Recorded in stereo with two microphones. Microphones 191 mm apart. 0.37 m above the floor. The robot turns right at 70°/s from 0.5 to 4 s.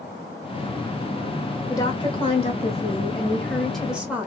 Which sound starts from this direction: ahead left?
A woman speaking, at 1.7 s.